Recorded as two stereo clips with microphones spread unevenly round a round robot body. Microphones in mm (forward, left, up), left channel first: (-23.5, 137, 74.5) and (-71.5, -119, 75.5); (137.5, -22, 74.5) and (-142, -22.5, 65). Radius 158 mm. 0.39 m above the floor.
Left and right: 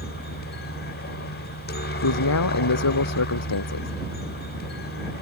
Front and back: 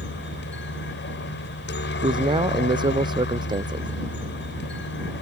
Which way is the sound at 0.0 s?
40° left.